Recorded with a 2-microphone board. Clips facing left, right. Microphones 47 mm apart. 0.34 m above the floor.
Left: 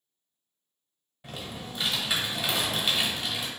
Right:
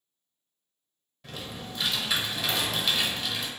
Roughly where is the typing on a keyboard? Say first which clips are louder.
Even; centre.